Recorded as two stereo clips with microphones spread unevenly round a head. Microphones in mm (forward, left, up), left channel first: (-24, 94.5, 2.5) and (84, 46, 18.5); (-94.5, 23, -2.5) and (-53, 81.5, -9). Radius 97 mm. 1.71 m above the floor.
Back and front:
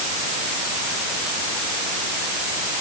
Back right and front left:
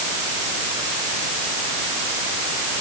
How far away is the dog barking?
I don't hear a dog barking.